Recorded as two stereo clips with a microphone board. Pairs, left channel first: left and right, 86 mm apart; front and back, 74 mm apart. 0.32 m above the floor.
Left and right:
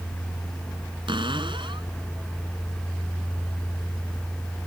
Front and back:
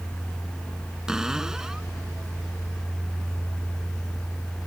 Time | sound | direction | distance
1.1 | a cupboard door | 100° right | ?